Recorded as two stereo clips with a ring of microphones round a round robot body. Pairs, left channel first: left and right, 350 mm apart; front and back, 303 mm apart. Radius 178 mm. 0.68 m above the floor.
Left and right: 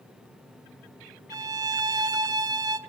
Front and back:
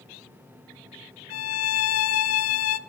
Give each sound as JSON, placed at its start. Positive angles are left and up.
{"t": 1.3, "sound": "a violin", "azimuth_deg": -15, "distance_m": 0.6}